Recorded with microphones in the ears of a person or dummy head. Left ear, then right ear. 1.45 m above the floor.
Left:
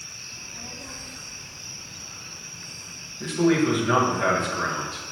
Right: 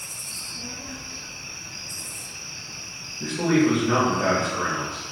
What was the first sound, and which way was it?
A child speaking, 50° left (ahead or behind).